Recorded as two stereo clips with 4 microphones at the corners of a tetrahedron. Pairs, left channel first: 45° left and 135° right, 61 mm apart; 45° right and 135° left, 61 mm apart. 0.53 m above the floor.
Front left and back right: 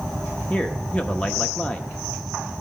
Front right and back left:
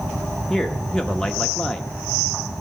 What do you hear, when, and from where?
0.5 s a man speaking: 20° left, 0.8 m